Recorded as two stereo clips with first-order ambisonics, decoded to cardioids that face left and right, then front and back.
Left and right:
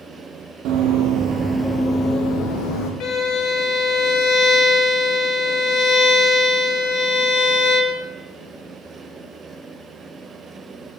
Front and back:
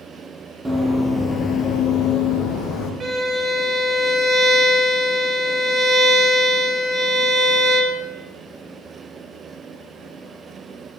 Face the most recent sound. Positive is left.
turn(degrees=115)